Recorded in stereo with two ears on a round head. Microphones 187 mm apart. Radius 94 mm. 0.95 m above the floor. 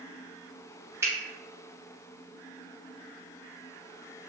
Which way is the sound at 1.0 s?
15° right (ahead or behind).